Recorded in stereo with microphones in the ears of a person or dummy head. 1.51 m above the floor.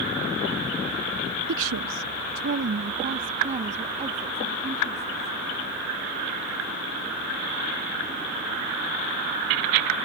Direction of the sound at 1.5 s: 65° right (ahead or behind).